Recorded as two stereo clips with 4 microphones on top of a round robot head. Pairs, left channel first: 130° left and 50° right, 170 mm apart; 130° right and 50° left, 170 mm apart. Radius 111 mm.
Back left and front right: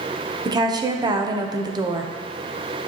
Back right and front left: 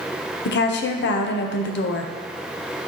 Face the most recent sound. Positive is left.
turn(degrees=-115)